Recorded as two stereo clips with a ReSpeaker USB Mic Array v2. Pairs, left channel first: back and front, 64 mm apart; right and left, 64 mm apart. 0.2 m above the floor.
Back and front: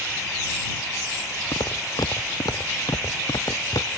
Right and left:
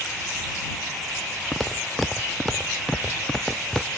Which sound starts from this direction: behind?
Footsteps, at 1.5 s.